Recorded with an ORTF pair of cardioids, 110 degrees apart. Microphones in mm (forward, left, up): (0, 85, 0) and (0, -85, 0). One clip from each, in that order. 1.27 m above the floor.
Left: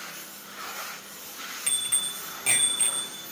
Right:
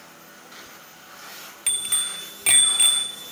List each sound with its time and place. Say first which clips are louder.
1.7 s a bicycle bell: right 3 dB; 25° right, 2.5 m; by 3.3 s 55° right, 2.5 m